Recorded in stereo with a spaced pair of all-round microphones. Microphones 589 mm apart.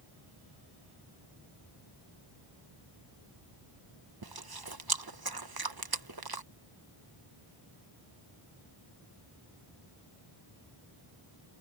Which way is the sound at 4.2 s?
40° right (ahead or behind).